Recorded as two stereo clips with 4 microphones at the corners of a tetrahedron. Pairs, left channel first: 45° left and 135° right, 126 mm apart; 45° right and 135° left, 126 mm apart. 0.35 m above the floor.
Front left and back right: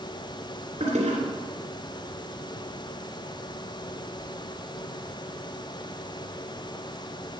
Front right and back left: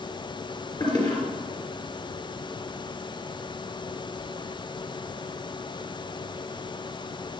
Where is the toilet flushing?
100° right, 3 m.